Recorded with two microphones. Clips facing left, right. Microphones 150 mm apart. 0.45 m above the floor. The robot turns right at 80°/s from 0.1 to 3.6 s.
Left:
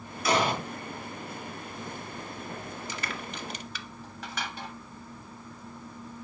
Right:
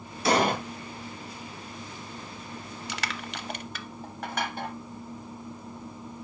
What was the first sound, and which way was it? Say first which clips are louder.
An explosion: right 3 dB; 30° right (ahead or behind).